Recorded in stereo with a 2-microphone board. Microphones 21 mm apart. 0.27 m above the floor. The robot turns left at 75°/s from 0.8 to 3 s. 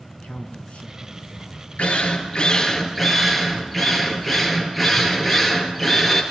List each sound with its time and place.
0.1 s a man speaking: 90° left, 3.5 m; by 1.7 s 20° left, 3.5 m
1.8 s a drill: 90° left, 3.5 m; by 6.2 s straight ahead, 3.5 m